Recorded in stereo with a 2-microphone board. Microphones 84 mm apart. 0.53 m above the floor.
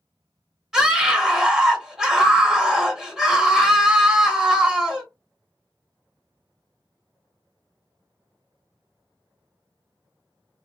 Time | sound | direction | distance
0.7 | a scream | centre (ahead or behind) | 0.8 m